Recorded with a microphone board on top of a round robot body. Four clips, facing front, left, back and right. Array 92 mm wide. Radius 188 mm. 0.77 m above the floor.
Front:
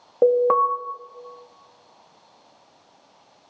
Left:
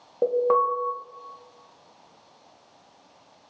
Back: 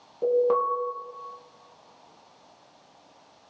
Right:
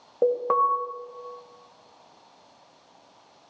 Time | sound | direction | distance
0.2 | an alarm | 5° right | 2.5 m